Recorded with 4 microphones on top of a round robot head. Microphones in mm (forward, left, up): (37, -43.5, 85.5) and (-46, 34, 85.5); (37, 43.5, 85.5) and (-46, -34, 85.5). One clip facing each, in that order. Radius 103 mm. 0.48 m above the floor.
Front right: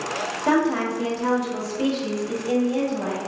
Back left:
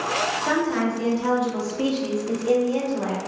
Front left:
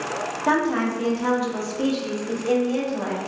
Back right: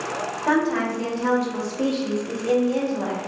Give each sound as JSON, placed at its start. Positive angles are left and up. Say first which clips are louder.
{"t": 0.5, "sound": "a woman speaking", "louder": "front right 4 dB, even", "azimuth_deg": -25, "distance_m": 0.8}